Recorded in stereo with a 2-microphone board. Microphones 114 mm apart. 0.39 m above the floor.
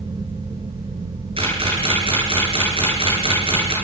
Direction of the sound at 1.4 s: 50° right (ahead or behind).